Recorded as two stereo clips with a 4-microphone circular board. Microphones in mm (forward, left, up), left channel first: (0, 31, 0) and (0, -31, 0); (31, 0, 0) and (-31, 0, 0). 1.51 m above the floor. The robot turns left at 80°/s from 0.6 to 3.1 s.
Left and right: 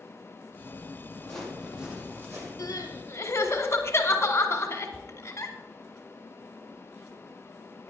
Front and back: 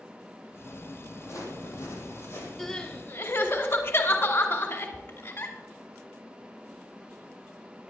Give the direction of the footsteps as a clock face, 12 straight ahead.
12 o'clock.